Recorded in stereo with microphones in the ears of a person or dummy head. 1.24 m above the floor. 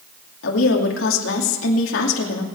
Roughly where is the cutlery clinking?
No cutlery clinking in this recording.